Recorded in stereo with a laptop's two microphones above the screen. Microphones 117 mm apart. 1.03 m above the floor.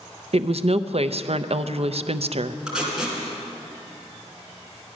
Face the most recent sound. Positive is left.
turn(degrees=-5)  # may be behind; listen again after turning